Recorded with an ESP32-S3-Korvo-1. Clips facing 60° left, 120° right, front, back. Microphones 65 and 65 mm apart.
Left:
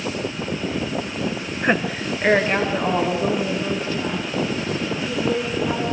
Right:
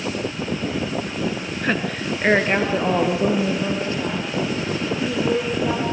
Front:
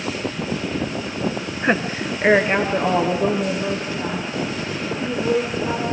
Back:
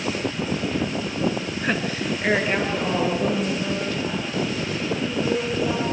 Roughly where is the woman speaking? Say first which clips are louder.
Left 3 dB, front 6 dB; ahead.